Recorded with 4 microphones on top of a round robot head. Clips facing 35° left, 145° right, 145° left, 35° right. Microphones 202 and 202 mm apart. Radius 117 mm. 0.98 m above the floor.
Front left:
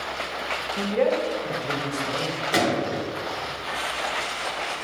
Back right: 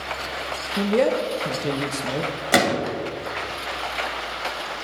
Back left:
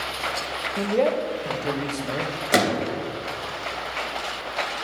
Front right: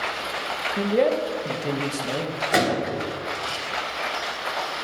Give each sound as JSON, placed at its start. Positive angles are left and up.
{"t": 0.8, "sound": "a man speaking", "azimuth_deg": -115, "distance_m": 1.0}
{"t": 2.5, "sound": "a gunshot", "azimuth_deg": -165, "distance_m": 2.0}